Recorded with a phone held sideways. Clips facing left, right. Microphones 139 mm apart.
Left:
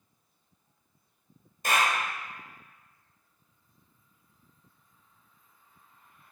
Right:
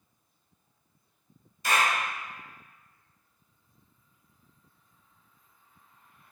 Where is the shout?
I don't hear a shout.